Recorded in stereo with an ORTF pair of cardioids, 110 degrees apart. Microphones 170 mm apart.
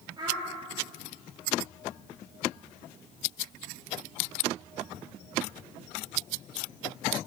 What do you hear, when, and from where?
0.2 s a child speaking: 30° right, 1.6 m